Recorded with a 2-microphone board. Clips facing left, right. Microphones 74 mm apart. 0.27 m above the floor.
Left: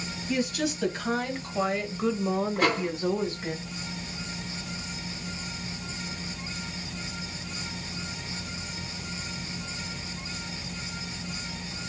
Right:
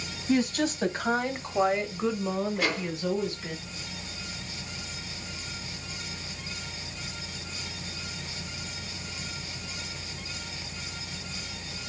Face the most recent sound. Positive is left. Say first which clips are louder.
# left 4 dB
turn(degrees=45)  # may be behind; listen again after turning